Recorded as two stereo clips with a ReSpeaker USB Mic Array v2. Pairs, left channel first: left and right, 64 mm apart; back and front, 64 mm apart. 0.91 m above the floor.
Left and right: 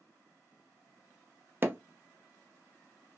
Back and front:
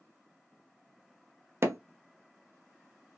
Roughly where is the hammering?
Ahead right.